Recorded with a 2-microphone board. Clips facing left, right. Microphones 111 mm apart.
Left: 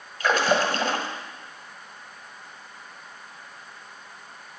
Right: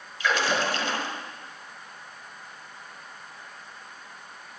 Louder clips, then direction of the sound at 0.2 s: Left 4 dB; 50° left (ahead or behind).